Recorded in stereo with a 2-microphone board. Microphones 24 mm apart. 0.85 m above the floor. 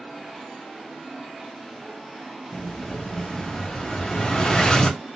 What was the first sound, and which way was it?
An explosion, 35° left (ahead or behind).